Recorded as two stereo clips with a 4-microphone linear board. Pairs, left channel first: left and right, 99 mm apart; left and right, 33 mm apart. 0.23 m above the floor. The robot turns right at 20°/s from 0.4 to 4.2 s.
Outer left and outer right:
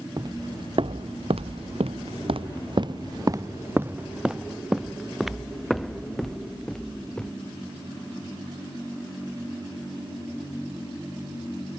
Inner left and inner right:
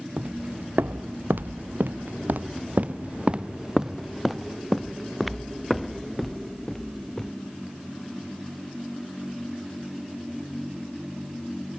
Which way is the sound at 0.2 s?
45° right (ahead or behind).